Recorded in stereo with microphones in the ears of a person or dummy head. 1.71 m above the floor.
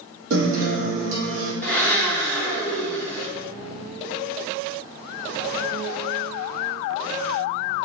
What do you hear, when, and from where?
0.3 s a guitar: 70° right (ahead or behind), 1.2 m
1.6 s a blender: 10° left (ahead or behind), 0.6 m